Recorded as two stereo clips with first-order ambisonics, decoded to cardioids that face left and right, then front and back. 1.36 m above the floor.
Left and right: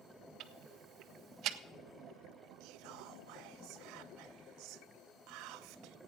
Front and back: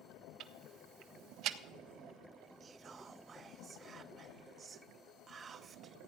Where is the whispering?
115° right, 0.6 m.